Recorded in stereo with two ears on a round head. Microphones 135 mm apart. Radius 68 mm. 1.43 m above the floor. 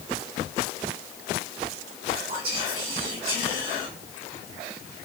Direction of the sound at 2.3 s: 35° right (ahead or behind).